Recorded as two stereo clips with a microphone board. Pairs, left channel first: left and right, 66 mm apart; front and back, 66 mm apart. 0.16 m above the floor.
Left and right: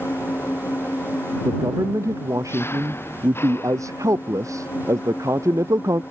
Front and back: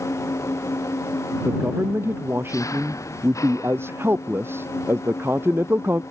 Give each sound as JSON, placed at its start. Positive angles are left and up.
{"t": 0.0, "sound": "an engine running", "azimuth_deg": 35}
{"t": 1.4, "sound": "a man speaking", "azimuth_deg": -125}